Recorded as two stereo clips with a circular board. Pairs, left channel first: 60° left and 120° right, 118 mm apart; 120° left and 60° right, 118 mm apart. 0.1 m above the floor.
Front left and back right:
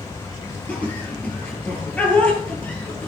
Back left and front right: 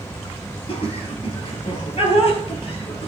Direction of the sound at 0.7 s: 135° left.